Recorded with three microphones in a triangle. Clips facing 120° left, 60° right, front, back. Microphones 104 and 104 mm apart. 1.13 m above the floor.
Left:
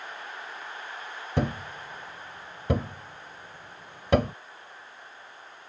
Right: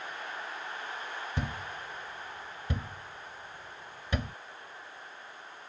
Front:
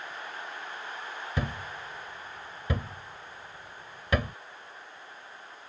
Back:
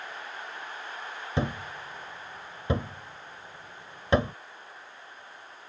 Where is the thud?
120° left.